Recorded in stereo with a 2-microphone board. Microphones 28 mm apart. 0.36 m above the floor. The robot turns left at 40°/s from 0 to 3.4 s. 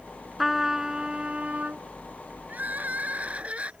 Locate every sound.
0.4 s a trumpet: 5° right; by 1.8 s 60° right
2.5 s crying: 90° right; by 3.7 s 125° right